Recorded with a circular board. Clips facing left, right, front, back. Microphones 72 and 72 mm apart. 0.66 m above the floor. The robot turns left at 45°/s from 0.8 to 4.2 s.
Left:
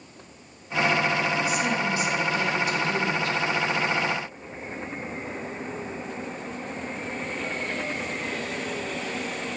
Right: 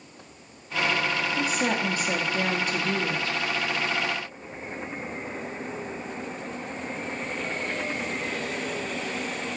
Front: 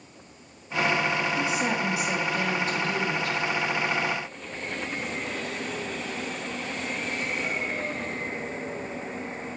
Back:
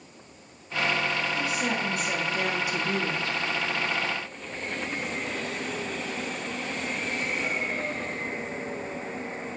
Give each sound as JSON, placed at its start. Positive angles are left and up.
{"t": 1.4, "sound": "a woman speaking", "azimuth_deg": -55, "distance_m": 1.3}